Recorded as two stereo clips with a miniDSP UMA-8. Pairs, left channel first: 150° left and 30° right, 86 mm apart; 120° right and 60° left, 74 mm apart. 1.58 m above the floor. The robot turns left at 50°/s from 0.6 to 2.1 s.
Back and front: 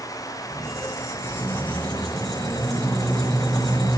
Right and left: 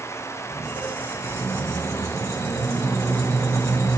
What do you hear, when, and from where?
0.5 s a squeak: 135° left, 1.0 m; by 4.0 s 60° left, 1.0 m